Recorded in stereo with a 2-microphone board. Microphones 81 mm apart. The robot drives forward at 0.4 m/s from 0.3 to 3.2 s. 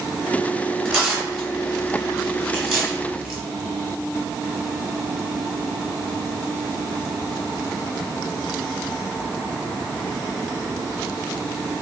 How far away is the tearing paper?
About 1.6 m.